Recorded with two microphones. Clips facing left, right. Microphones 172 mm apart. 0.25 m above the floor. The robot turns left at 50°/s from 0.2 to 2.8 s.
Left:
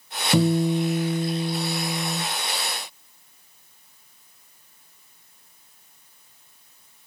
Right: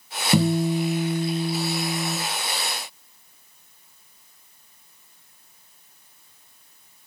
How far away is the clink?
No clink in this recording.